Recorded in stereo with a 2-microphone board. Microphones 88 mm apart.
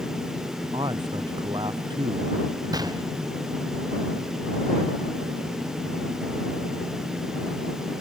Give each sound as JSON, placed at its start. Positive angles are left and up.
{"t": 0.7, "sound": "a man speaking", "side_deg": -70}
{"t": 2.7, "sound": "a gunshot", "side_deg": -50}